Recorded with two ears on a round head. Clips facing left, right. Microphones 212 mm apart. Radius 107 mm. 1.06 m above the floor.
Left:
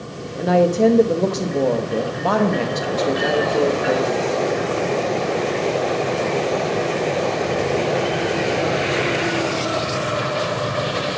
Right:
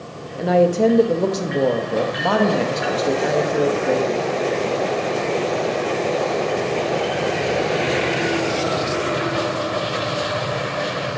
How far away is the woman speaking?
About 0.9 m.